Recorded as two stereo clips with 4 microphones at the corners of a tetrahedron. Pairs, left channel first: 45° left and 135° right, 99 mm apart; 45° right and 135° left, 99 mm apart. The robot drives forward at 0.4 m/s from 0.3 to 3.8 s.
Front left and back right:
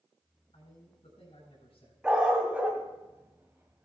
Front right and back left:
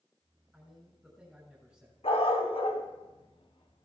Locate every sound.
0.5 s a man speaking: 45° left, 6 m; by 1.9 s 50° left, 6 m
2.0 s a dog barking: 55° right, 2 m; by 3.9 s 75° right, 1.8 m